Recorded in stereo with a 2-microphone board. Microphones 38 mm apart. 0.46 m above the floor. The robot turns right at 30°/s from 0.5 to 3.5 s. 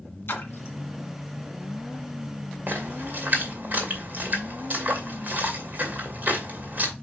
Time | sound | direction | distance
0.3 | a splash | 80° left | 1.9 m
2.7 | a splash | 55° right (ahead or behind) | 2.5 m